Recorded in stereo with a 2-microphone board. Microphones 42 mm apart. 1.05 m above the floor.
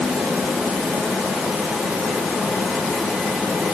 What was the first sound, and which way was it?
Only background noise.